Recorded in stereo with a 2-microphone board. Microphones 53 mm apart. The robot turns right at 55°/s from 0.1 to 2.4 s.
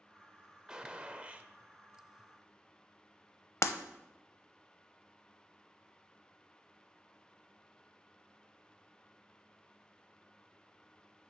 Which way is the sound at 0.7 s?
10° right (ahead or behind).